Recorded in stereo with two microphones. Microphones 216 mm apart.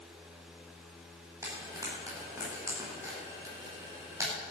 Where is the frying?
15° right (ahead or behind), 6 m.